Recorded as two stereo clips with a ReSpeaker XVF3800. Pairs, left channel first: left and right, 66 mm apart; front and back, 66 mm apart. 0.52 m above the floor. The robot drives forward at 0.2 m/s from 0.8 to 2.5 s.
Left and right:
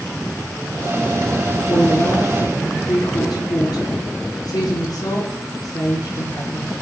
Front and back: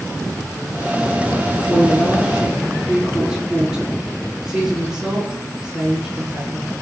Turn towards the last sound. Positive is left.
turn(degrees=95)